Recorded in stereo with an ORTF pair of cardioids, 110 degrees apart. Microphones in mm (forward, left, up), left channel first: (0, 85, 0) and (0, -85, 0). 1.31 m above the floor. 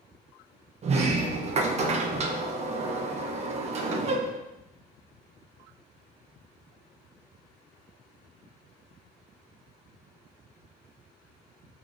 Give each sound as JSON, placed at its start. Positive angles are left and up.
{"t": 0.8, "sound": "a sliding door", "azimuth_deg": -40, "distance_m": 1.1}